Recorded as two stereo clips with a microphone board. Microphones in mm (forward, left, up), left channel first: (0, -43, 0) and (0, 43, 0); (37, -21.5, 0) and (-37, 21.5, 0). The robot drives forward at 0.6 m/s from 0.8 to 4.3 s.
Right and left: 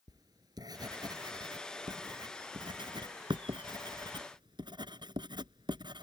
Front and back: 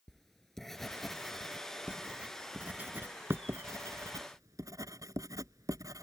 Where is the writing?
60° left; by 6.0 s 105° left.